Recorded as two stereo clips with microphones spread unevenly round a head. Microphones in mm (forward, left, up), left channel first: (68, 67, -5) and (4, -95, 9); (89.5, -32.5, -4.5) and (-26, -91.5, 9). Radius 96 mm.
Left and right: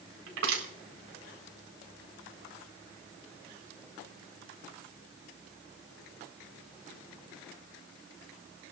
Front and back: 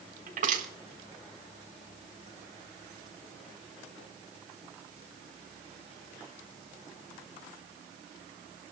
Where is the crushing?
135° right, 4 m.